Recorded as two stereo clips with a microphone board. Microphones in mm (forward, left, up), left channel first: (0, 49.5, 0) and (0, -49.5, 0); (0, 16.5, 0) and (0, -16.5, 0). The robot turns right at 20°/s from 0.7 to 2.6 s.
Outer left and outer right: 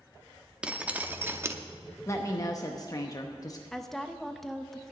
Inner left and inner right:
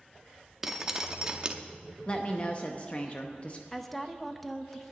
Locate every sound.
0.6 s dripping: 10° right (ahead or behind), 0.7 m; by 1.6 s 25° right (ahead or behind), 0.7 m
2.1 s a woman speaking: 30° left (ahead or behind), 0.7 m; by 3.6 s 35° left (ahead or behind), 0.7 m
3.7 s a woman speaking: 5° left (ahead or behind), 0.6 m